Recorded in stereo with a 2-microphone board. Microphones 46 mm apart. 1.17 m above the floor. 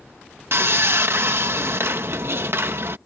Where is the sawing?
60° right (ahead or behind).